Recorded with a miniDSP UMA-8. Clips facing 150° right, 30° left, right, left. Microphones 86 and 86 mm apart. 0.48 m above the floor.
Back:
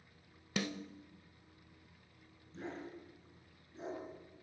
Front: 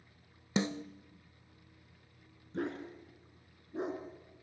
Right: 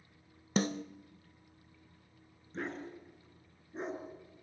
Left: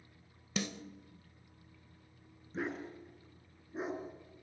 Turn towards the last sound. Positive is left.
turn(degrees=5)